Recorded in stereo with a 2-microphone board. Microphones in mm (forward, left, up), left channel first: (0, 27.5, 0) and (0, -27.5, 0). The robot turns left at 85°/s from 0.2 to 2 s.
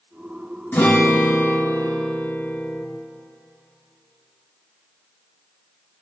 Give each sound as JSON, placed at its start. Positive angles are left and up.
{"t": 0.7, "sound": "a guitar", "azimuth_deg": 145, "distance_m": 3.5}